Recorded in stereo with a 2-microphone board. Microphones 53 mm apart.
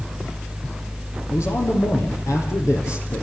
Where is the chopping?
I don't hear chopping.